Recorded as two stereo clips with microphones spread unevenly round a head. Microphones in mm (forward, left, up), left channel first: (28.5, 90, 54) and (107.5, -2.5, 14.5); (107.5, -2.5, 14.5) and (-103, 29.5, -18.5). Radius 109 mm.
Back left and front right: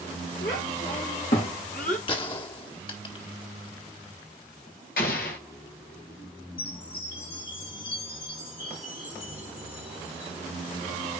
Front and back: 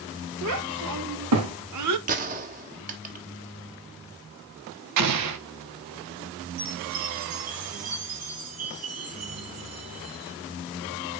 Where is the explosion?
175° left, 1.2 m.